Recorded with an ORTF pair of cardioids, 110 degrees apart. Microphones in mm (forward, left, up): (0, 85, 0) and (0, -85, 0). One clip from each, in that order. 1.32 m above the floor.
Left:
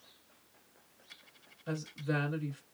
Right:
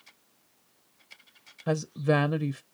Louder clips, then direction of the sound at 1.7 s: Right 11 dB; 65° right.